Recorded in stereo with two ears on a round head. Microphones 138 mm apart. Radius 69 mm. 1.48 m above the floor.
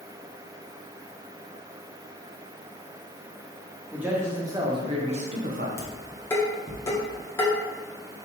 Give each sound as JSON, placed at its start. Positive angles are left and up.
{"t": 3.9, "sound": "a man speaking", "side_deg": -10, "distance_m": 1.9}
{"t": 5.8, "sound": "dishes clattering", "side_deg": 15, "distance_m": 1.8}